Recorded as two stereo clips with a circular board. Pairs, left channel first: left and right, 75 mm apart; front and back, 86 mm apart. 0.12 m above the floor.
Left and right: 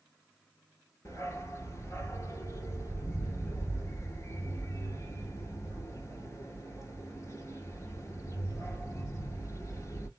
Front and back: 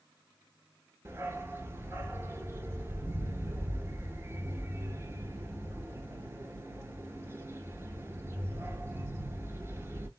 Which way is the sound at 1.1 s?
130° left.